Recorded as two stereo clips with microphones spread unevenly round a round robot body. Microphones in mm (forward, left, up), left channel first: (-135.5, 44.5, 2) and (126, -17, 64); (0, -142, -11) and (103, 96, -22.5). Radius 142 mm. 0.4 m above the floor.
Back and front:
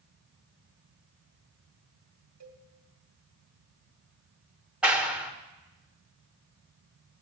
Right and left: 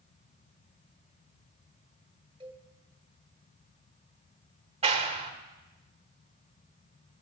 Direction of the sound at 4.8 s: 95° left.